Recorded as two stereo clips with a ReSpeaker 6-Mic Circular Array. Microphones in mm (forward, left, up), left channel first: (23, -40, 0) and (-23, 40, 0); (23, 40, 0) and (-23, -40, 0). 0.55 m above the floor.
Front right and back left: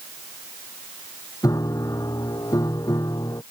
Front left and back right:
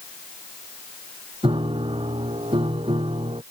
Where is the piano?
110° right.